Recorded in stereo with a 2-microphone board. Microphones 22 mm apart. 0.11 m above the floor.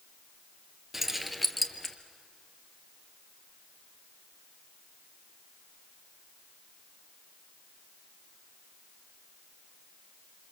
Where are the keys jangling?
10° right (ahead or behind), 1.5 m; by 1.9 s 15° left (ahead or behind), 1.6 m.